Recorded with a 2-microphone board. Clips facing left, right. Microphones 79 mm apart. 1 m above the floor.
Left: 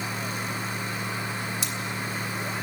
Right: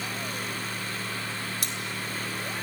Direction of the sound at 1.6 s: 50° right (ahead or behind).